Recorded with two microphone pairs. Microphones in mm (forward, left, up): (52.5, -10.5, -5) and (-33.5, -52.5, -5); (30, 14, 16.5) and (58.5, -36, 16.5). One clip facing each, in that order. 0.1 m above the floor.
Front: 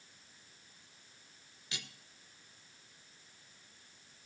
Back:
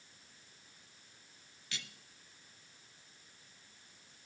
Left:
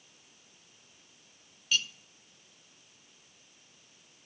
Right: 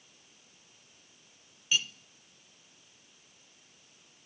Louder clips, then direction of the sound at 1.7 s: Front 1 dB, even; 10° right.